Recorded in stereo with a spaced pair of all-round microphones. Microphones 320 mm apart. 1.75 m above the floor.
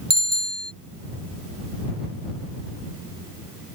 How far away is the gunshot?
No gunshot in this recording.